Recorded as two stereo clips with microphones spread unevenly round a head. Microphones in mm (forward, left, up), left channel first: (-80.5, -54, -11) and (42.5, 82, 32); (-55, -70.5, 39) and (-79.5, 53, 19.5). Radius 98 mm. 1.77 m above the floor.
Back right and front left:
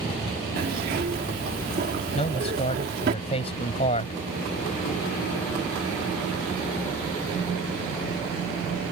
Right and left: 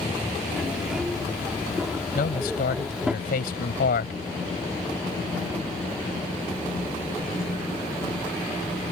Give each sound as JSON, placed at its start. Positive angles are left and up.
{"t": 0.6, "sound": "a zipper", "azimuth_deg": 10}
{"t": 2.1, "sound": "a man speaking", "azimuth_deg": -65}